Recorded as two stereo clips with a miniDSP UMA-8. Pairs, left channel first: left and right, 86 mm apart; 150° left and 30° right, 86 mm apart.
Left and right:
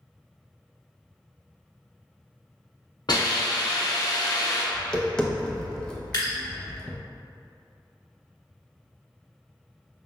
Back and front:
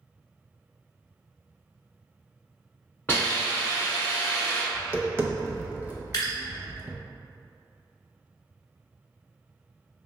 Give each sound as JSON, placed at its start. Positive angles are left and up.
{"t": 3.1, "sound": "a hiss", "azimuth_deg": 90, "distance_m": 1.5}
{"t": 4.7, "sound": "tapping", "azimuth_deg": 15, "distance_m": 0.5}
{"t": 6.1, "sound": "dripping", "azimuth_deg": 115, "distance_m": 1.5}